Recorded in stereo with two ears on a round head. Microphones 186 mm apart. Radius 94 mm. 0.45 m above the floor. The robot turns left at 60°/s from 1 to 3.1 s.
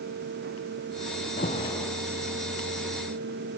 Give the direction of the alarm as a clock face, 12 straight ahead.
11 o'clock.